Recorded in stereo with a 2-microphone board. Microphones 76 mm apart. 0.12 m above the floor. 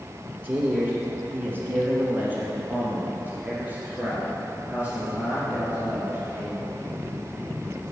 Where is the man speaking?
25° right (ahead or behind), 1.5 m; by 6.7 s 15° right (ahead or behind), 3.5 m.